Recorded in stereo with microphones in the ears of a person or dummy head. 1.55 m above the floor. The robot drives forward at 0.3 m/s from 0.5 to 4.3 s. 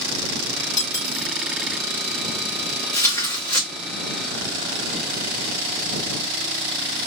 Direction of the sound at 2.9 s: 15° left (ahead or behind).